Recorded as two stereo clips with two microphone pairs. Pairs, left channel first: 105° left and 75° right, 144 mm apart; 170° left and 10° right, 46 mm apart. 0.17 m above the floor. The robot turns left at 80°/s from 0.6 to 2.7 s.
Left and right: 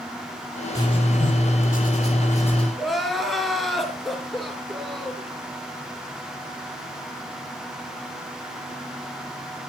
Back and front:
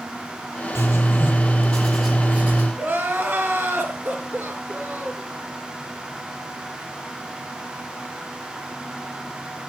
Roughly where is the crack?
No crack in this recording.